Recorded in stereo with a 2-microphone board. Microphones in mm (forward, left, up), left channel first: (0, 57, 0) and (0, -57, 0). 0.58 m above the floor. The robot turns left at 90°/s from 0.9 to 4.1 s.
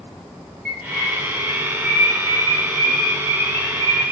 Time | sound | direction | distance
0.7 | a bird | 5° right (ahead or behind) | 1.4 m